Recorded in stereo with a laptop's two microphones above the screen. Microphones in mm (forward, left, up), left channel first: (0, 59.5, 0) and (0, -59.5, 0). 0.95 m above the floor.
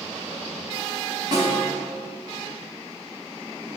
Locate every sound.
1.3 s a snare drum: 35° right (ahead or behind), 3.5 m